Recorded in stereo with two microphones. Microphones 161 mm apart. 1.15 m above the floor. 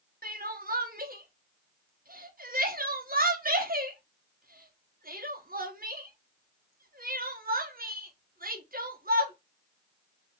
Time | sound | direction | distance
0.2 | crying | 65° right (ahead or behind) | 1.2 m